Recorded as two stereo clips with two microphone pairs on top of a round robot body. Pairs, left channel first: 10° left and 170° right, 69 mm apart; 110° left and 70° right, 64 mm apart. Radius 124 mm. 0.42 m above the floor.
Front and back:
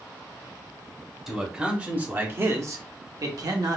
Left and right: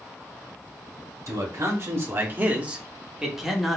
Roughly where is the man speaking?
Right.